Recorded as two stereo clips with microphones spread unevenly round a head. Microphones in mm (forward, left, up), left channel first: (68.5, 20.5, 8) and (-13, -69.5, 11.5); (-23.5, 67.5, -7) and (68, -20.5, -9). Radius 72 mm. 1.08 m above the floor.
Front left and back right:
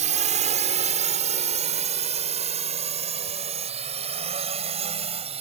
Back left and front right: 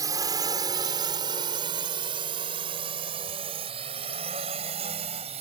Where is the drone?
110° right; by 5.4 s 95° right.